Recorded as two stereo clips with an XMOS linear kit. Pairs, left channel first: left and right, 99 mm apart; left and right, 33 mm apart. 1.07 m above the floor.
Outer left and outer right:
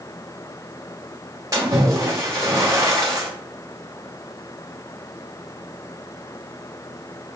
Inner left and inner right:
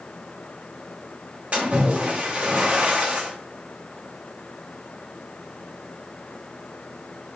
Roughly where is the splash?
Right.